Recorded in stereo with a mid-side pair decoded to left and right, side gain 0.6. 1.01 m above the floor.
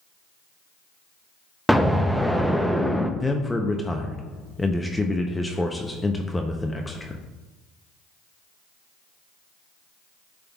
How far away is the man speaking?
About 0.7 m.